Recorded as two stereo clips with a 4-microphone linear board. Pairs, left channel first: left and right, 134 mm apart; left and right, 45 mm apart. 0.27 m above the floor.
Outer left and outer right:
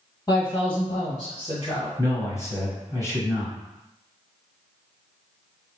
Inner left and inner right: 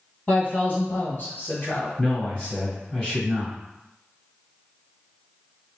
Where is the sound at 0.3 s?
30° left (ahead or behind), 1.4 m; by 1.9 s 45° left (ahead or behind), 1.8 m.